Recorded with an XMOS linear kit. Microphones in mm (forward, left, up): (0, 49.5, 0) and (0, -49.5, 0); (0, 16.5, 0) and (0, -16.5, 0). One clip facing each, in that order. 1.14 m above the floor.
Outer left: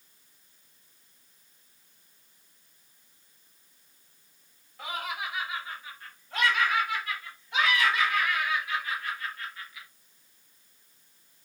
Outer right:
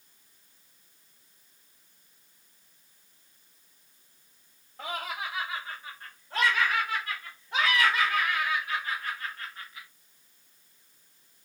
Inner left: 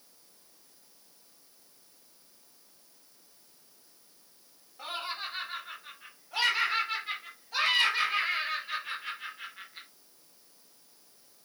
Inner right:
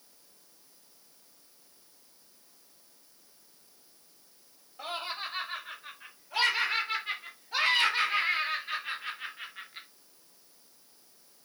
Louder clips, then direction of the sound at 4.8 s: Even, even; 35° right (ahead or behind).